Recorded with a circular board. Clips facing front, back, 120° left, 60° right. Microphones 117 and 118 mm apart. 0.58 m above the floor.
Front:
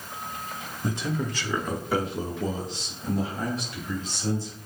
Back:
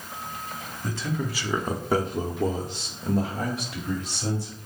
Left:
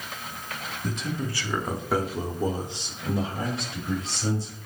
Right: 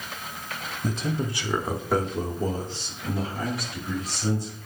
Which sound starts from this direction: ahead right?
A man speaking, at 0.8 s.